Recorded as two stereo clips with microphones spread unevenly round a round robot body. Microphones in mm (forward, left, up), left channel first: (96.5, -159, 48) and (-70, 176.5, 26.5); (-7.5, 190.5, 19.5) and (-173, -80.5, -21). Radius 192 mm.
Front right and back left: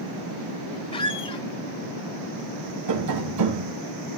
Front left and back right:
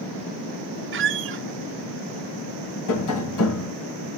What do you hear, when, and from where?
0.9 s a squeak: 140° right, 0.6 m
2.9 s tapping: 80° left, 3 m